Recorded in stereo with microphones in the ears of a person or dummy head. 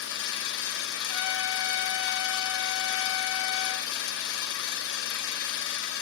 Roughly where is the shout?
No shout in this recording.